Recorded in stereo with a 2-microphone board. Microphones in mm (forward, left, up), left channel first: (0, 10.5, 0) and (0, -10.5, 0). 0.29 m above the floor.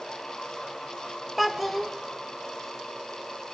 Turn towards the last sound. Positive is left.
turn(degrees=0)  # may be behind; listen again after turning